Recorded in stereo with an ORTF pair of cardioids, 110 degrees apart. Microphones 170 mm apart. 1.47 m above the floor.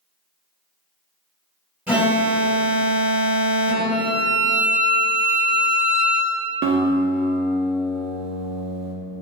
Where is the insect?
I don't hear an insect.